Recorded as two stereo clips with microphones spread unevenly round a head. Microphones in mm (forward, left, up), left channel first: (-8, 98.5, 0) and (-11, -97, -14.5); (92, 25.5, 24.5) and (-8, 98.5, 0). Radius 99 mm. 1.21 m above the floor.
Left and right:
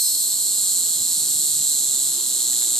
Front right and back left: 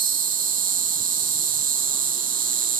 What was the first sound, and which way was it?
An insect, 175° left.